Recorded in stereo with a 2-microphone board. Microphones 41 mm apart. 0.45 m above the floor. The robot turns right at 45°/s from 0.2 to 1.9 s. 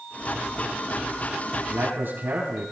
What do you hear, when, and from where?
1.7 s a man speaking: 70° right (ahead or behind), 5 m; by 2.7 s 65° right (ahead or behind), 5 m